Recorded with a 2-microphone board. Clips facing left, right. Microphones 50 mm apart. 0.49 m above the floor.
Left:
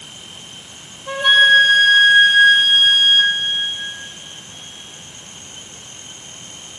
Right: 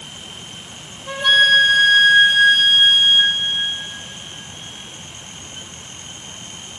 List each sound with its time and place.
1.1 s a flute: 10° left (ahead or behind), 0.8 m